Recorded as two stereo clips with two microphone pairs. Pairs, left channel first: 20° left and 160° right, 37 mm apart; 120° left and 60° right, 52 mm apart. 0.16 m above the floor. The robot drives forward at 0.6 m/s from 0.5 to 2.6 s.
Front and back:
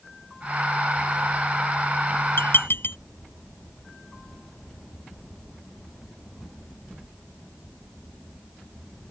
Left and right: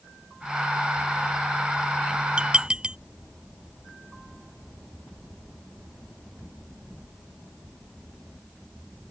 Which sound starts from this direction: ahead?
Dishes clattering, at 2.4 s.